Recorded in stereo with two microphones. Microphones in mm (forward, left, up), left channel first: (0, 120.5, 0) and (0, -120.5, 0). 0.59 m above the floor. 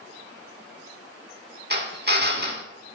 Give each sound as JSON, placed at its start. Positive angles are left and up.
{"t": 1.7, "sound": "a drill", "side_deg": -40, "distance_m": 1.2}